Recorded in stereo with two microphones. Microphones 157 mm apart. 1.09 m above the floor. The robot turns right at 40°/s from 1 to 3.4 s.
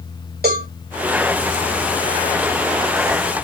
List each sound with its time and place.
0.4 s a cowbell: 80° right, 2.5 m